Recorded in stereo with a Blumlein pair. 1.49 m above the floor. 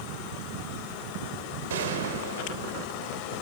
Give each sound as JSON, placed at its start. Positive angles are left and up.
{"t": 1.7, "sound": "a gunshot", "azimuth_deg": -60, "distance_m": 4.0}